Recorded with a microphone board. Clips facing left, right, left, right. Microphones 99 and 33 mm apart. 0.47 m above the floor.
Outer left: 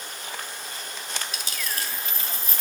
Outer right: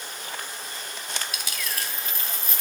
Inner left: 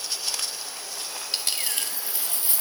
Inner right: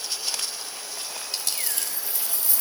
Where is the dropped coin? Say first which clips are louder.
Even, inner left 4 dB; 30° left (ahead or behind), 1.3 m.